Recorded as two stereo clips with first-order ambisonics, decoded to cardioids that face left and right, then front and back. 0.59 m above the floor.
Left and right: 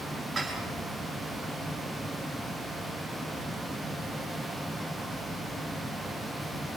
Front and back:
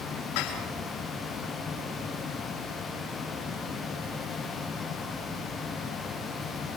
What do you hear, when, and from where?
0.3 s dishes clattering: 20° right, 6 m